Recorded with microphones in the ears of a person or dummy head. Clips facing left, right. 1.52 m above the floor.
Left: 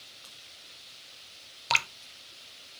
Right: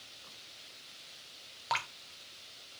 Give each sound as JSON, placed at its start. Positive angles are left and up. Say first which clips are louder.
{"t": 1.7, "sound": "dripping", "louder": "left 3 dB", "side_deg": 40, "distance_m": 0.7}